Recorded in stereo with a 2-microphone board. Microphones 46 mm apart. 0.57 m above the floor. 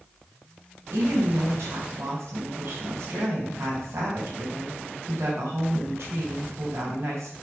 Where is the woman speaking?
65° right (ahead or behind), 3.5 m.